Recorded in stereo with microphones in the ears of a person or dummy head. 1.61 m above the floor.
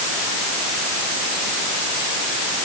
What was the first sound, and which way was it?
Only background noise.